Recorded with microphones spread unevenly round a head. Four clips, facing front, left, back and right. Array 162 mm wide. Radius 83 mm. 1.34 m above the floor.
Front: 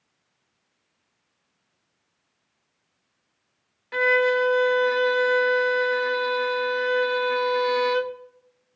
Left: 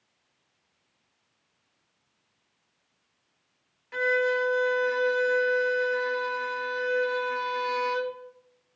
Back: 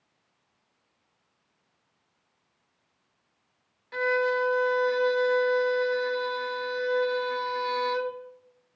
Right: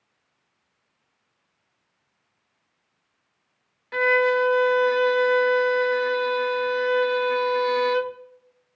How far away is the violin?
About 0.7 m.